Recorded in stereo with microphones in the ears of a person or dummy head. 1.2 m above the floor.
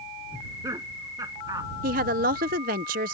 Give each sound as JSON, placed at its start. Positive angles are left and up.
{"t": 0.3, "sound": "laughter", "side_deg": -15}
{"t": 1.8, "sound": "a woman speaking", "side_deg": -40}